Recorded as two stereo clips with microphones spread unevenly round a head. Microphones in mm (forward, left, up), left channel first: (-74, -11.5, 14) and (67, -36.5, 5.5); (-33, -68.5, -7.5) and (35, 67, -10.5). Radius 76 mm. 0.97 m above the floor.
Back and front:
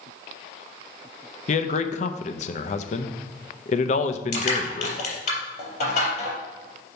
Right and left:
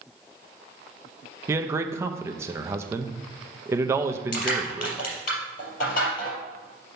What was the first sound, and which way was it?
A man speaking, 135° left.